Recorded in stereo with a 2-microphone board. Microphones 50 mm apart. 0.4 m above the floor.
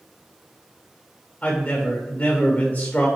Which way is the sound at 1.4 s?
35° left (ahead or behind).